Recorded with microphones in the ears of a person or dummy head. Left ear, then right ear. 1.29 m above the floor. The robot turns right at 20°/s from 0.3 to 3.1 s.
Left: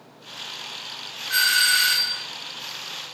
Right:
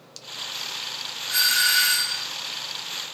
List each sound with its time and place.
1.3 s a doorbell: 10° right (ahead or behind), 1.5 m; by 2.2 s 25° right (ahead or behind), 1.5 m